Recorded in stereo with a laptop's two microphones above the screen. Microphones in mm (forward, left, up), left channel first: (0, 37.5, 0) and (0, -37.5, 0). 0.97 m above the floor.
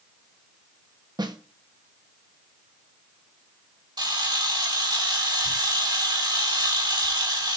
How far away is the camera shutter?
About 4 m.